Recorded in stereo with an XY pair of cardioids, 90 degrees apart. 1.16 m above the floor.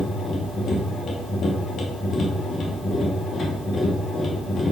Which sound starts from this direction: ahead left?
A machine running, at 0.0 s.